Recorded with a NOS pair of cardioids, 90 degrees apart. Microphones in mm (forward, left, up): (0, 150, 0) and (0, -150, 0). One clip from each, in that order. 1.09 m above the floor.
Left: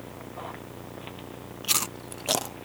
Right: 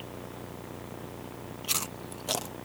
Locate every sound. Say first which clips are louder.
1.6 s chewing: left 5 dB; 20° left